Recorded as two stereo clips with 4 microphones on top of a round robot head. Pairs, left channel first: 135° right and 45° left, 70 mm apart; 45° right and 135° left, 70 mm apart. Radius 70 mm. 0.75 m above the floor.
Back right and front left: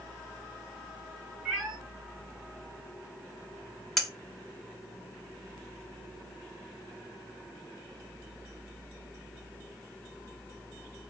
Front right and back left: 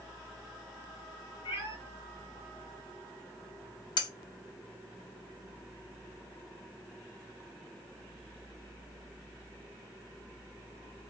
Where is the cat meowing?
40° right, 1.3 m.